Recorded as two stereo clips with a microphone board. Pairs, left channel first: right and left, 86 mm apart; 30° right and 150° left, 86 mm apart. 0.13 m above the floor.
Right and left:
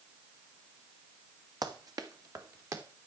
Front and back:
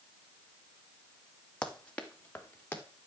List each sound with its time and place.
1.6 s running footsteps: 50° left, 2 m; by 2.8 s 40° left, 2.5 m